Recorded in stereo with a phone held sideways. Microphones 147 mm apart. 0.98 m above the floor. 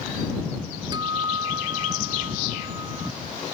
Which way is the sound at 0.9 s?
30° right (ahead or behind).